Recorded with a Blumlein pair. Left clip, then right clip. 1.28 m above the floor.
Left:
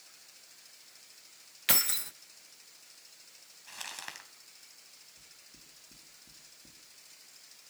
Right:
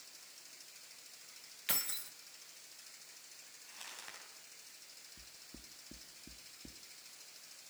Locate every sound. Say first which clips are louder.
1.7 s keys jangling: left 10 dB; 65° left, 0.5 m
3.7 s crumpling: left 8 dB; 30° left, 3 m
5.2 s knocking: even; 65° right, 2.5 m